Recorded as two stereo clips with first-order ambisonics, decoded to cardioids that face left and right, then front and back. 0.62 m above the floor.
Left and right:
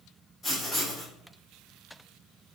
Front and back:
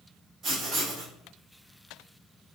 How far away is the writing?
About 1.0 m.